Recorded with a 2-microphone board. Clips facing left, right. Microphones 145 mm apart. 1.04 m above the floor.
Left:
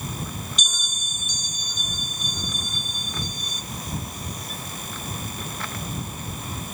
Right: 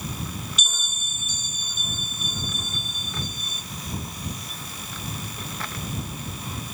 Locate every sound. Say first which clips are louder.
0.6 s a bell: left 1 dB; 5° right (ahead or behind)